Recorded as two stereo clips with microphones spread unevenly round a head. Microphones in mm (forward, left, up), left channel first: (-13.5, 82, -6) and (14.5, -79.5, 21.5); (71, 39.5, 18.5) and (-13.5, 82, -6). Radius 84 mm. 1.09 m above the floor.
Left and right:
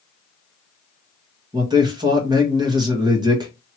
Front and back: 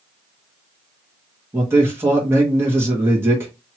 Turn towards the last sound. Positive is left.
turn(degrees=-150)